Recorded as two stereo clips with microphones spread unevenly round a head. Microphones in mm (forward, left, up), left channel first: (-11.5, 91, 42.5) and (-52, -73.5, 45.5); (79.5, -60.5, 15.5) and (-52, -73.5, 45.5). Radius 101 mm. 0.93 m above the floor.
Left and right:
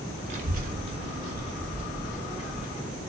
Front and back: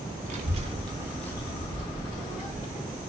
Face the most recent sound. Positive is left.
turn(degrees=-15)